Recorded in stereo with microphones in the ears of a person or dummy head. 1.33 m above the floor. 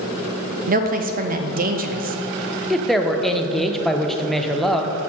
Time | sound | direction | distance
0.7 | a woman speaking | 45° right (ahead or behind) | 0.5 m
2.7 | a woman speaking | centre (ahead or behind) | 0.6 m